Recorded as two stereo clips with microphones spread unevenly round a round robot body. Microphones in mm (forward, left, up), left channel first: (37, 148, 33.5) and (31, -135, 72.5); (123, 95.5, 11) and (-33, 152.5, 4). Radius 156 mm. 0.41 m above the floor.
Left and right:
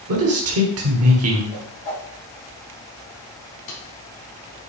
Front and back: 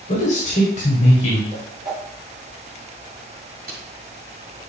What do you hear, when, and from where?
0.1 s a man speaking: 70° right, 1.5 m
1.5 s a whoosh: 95° left, 3.5 m
3.7 s tape being pulled: 135° left, 3.5 m